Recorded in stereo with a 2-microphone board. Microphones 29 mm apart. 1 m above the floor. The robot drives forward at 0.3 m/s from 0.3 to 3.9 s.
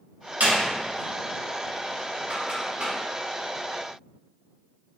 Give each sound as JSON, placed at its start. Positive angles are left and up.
{"t": 0.4, "sound": "a door slam", "side_deg": -90, "distance_m": 1.1}